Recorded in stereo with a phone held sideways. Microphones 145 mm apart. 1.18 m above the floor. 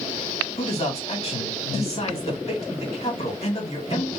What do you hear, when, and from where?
0.6 s a man speaking: 45° left (ahead or behind), 1.9 m